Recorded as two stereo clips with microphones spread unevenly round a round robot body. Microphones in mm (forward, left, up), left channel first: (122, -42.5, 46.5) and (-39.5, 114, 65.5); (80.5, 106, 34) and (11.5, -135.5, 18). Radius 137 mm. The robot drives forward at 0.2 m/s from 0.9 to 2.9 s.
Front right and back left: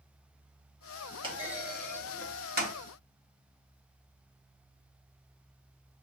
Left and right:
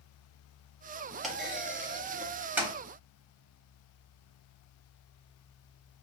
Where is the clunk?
150° left, 0.5 m; by 2.7 s 170° left, 0.7 m.